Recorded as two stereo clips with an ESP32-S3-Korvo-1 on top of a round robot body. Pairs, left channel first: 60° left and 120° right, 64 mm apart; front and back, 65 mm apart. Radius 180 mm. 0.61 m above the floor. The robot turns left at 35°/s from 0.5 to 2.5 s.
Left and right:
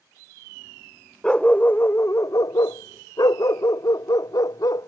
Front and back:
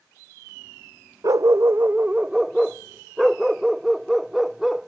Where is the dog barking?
140° left; by 4.9 s 95° left.